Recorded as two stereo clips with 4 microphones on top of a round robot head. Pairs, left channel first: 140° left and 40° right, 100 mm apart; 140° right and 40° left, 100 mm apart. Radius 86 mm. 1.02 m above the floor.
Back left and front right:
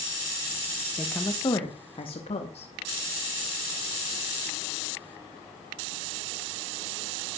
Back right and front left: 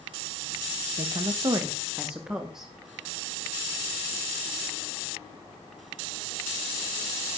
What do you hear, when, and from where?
1.0 s a woman speaking: 60° left, 1.5 m; by 2.7 s 120° left, 3 m